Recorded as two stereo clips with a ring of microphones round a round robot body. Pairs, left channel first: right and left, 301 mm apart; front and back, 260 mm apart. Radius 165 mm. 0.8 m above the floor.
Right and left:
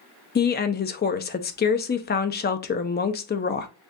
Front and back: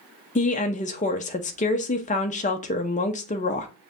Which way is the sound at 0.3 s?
45° right.